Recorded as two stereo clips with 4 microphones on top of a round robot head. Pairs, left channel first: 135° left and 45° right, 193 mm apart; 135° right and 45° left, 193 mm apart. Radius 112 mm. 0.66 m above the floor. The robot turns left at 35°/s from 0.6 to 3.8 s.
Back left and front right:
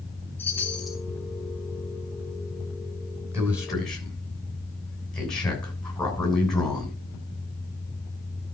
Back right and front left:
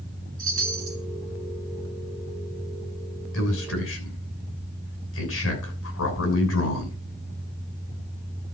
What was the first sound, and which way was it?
A chime, 55° left.